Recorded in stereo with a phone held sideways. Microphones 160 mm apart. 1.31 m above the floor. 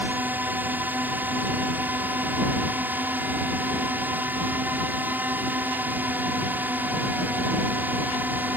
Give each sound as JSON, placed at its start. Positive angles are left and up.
{"t": 0.0, "sound": "a drone", "side_deg": -10}